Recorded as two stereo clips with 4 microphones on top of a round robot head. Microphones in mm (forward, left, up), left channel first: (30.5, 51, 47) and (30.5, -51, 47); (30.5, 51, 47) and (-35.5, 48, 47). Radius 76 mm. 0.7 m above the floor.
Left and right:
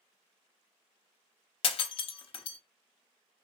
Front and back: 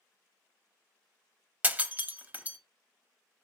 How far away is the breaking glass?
About 0.8 m.